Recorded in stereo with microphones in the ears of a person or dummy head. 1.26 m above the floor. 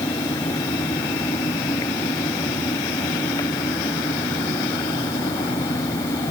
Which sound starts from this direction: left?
A fan, at 0.0 s.